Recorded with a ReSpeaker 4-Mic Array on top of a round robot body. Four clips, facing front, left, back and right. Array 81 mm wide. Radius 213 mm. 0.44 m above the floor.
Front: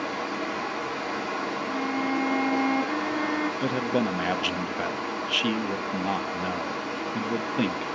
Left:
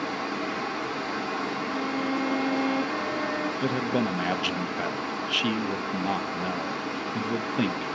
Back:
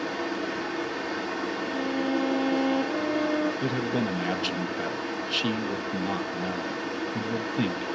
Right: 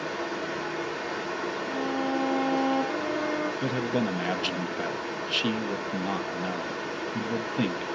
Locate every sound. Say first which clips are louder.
0.0 s running water: left 1 dB, even; 30° left, 4 m
1.7 s a violin: right 1 dB, even; 20° left, 2.0 m
3.6 s a man speaking: left 3 dB, front 2 dB; 25° left, 0.7 m